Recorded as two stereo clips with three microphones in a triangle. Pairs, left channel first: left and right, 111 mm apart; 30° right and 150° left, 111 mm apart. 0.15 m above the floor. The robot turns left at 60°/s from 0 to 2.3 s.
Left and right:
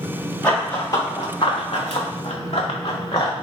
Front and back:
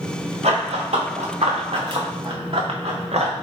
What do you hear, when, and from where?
0.4 s running footsteps: 170° left, 1.4 m; by 3.3 s 135° left, 1.1 m